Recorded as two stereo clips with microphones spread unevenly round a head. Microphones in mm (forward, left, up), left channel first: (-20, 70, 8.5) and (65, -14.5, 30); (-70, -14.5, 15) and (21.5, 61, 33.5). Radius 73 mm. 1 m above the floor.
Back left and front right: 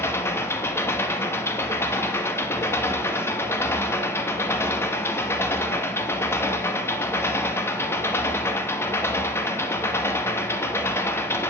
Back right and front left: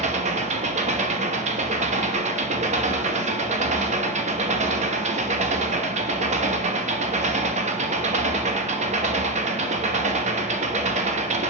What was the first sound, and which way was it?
An engine running, 65° left.